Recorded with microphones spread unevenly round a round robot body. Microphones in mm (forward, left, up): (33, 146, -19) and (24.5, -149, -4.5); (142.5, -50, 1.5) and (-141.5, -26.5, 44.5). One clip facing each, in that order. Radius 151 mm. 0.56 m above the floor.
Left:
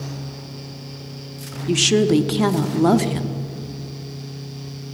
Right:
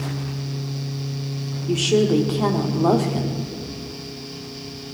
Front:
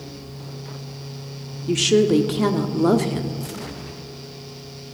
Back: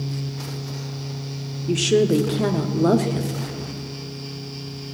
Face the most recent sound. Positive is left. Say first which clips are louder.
# left 1 dB, front 1 dB
turn(degrees=70)